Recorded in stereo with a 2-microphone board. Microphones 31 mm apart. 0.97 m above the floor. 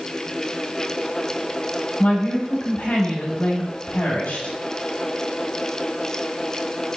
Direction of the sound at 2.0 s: 75° left (ahead or behind).